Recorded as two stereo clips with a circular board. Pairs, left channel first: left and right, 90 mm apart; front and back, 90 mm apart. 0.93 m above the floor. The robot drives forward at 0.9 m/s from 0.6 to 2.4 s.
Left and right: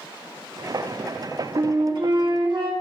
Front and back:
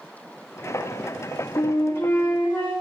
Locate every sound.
1.6 s a flute: 45° right, 2.5 m; by 2.7 s 60° right, 2.5 m